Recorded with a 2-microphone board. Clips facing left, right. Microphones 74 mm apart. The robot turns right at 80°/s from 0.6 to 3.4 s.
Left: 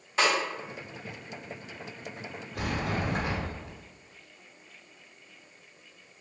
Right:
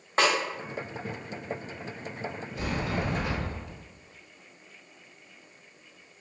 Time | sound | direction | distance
0.2 | a snare drum | 40° right (ahead or behind) | 1.5 m
2.5 | a sliding door | 90° left | 1.2 m